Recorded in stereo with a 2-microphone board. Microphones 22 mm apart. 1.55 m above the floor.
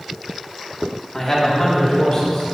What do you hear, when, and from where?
1.1 s a man speaking: 20° left (ahead or behind), 2.5 m; by 2.4 s 45° left (ahead or behind), 3.5 m